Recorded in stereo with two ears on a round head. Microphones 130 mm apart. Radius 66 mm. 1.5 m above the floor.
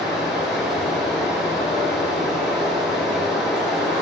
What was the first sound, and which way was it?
Running water, centre (ahead or behind).